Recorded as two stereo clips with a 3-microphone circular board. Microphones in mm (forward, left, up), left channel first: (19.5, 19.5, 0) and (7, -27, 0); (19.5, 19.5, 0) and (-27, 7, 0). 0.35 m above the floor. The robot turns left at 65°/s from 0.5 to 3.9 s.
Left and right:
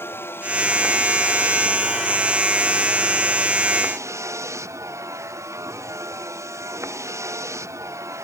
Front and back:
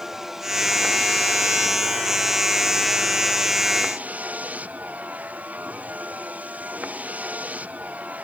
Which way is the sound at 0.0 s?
115° left.